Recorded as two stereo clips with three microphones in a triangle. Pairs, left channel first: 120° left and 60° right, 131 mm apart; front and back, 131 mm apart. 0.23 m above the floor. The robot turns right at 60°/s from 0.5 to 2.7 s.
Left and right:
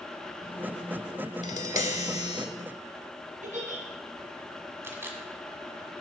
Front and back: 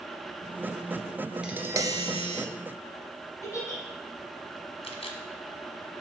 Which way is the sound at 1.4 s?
95° left.